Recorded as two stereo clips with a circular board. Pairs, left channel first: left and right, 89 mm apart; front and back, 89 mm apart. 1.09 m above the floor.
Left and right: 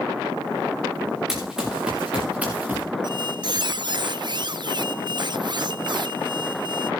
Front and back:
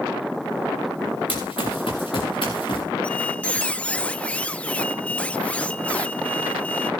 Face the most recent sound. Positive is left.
turn(degrees=-75)